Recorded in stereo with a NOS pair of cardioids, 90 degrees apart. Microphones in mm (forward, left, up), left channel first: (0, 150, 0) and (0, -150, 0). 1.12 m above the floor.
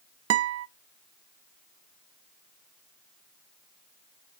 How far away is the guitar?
About 0.6 m.